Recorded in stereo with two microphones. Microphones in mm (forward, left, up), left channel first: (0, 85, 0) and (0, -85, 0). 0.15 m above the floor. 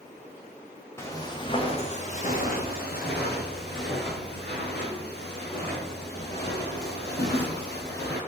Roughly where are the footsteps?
Centre.